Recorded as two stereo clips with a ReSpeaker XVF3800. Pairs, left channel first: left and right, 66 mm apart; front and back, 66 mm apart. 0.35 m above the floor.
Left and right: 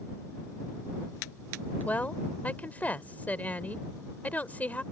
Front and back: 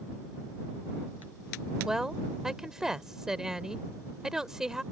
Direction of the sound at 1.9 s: 110° left.